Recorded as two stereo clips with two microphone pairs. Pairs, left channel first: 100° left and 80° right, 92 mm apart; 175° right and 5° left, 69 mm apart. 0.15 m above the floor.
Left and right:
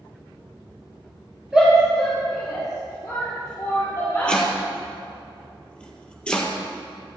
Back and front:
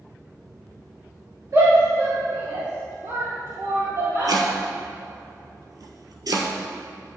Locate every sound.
1.5 s a shout: 5° right, 2.5 m; by 4.4 s 40° left, 4.5 m
4.3 s chopping: 20° left, 1.4 m